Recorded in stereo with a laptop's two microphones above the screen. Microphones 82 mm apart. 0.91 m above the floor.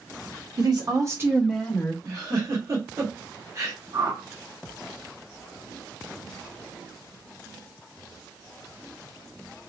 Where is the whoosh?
55° right (ahead or behind), 1.3 m.